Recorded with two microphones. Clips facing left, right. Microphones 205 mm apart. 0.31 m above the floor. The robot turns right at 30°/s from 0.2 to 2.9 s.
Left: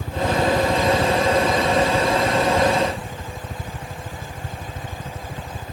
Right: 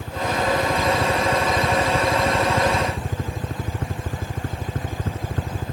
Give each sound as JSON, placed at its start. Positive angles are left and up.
{"t": 0.0, "sound": "a helicopter", "side_deg": 5}